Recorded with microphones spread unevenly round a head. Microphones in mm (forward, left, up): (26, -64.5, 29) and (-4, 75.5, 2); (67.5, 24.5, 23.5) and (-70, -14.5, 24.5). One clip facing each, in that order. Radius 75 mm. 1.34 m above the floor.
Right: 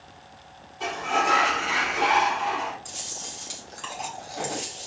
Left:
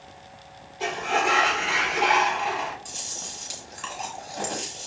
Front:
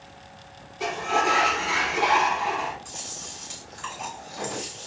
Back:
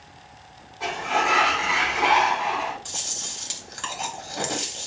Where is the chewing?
170° right, 1.7 m.